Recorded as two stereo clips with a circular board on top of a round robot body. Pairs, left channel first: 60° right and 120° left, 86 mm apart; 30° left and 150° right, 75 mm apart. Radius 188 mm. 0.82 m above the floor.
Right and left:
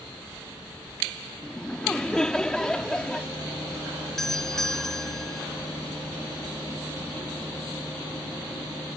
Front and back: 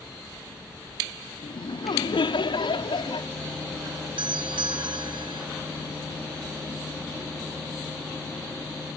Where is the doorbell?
145° right.